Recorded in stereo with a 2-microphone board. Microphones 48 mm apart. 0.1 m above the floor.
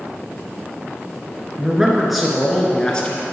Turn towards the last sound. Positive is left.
turn(degrees=25)  # may be behind; listen again after turning